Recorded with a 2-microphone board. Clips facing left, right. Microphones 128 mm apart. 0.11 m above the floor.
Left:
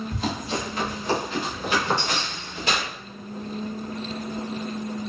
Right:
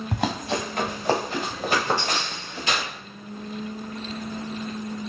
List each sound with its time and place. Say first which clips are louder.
0.1 s running footsteps: right 5 dB; 65° right (ahead or behind), 1.2 m; by 2.7 s 40° right (ahead or behind), 2.5 m
2.7 s tearing paper: left 1 dB; 35° left (ahead or behind), 1.6 m